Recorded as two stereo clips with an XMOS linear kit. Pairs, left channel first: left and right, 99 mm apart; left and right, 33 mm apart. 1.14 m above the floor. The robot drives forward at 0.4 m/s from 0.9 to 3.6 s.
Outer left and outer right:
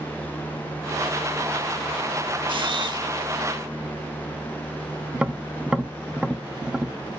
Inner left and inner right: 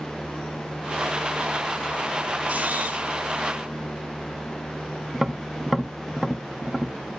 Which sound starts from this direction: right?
A camera shutter, at 2.5 s.